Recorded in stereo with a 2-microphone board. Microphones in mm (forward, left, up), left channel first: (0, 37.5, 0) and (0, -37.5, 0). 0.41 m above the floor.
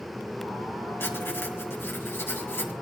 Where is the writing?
30° left (ahead or behind), 2.5 m.